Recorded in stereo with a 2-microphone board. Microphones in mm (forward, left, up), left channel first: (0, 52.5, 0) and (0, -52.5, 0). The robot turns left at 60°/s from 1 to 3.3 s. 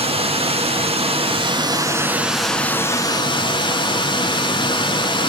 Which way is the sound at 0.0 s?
95° right.